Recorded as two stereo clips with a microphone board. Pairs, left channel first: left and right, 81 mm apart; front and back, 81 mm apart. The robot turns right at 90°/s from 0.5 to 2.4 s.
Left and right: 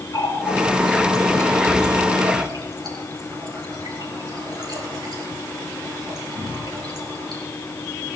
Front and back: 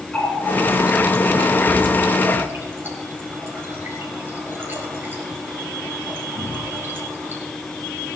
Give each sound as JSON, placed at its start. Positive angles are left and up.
{"t": 0.1, "sound": "a running tap", "azimuth_deg": 70, "distance_m": 4.0}